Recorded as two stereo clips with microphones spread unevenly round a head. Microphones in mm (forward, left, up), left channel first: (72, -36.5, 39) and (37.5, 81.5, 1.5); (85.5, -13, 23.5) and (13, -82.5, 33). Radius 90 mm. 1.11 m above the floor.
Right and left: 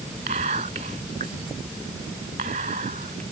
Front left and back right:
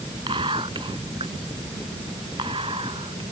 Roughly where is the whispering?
Behind.